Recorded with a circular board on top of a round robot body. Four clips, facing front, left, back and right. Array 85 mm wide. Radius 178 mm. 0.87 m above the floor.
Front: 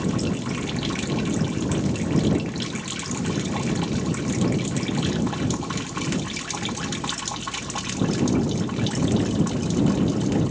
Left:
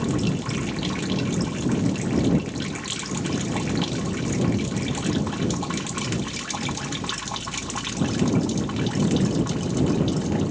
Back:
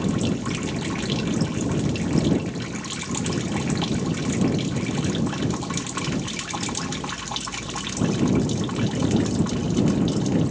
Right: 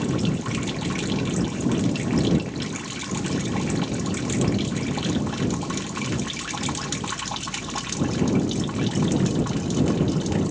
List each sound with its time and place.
Only background noise.